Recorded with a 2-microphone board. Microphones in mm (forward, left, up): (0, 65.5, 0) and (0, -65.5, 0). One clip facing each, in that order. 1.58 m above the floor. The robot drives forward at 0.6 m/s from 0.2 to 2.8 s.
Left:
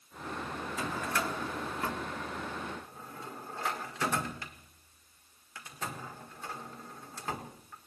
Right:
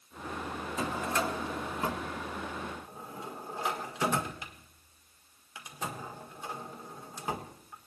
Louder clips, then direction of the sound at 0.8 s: Right 3 dB; 25° right (ahead or behind).